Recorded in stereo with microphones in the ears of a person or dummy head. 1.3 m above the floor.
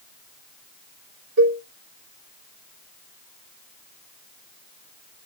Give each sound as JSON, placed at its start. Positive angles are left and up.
{"t": 1.4, "sound": "a cowbell", "side_deg": -75, "distance_m": 3.0}